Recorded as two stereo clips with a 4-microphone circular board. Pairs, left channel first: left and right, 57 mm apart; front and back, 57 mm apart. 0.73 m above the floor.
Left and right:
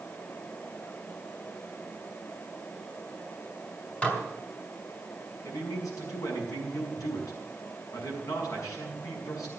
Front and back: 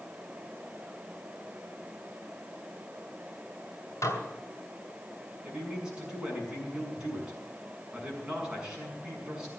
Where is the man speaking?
105° left, 6.5 m.